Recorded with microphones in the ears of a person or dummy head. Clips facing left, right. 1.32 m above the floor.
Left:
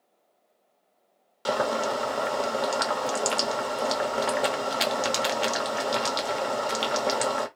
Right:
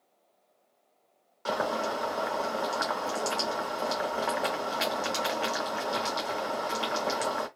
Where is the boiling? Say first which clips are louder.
Left 4 dB; 45° left (ahead or behind), 0.7 m.